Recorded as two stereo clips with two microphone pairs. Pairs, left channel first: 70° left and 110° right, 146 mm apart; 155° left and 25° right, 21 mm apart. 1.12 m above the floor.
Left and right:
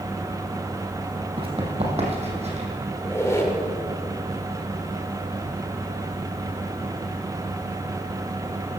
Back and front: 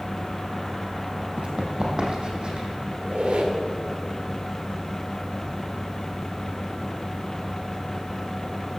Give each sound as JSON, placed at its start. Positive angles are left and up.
{"t": 1.4, "sound": "running footsteps", "azimuth_deg": -65, "distance_m": 2.5}
{"t": 3.0, "sound": "a squeak", "azimuth_deg": 0, "distance_m": 2.0}